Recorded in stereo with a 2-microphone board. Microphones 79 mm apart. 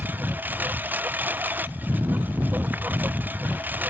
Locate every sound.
0.0 s a lawn mower: 25° right (ahead or behind)